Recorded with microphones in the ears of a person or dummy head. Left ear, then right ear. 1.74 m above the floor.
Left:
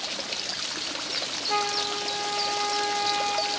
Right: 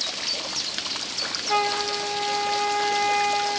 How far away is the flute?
About 0.7 m.